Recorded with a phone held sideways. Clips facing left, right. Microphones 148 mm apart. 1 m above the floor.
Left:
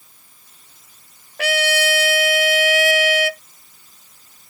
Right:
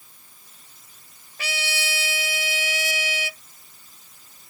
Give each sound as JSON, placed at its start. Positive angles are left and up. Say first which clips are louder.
{"t": 1.4, "sound": "a trumpet", "louder": "left 13 dB", "side_deg": 70}